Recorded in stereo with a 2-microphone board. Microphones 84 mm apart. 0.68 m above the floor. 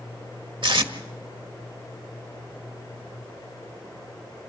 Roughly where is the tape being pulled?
Right.